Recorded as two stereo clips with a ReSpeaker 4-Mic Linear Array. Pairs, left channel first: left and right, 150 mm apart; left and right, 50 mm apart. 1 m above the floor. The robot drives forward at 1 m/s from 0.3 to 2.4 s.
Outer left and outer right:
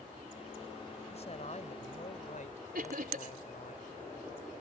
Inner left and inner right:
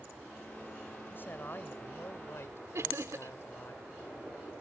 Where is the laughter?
75° right (ahead or behind).